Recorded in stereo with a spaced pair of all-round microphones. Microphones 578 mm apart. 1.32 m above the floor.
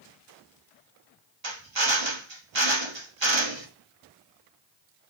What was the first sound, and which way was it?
A drill, 50° right (ahead or behind).